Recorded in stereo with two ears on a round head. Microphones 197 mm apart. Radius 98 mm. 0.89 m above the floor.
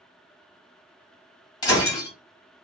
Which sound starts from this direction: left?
Breaking glass, at 1.6 s.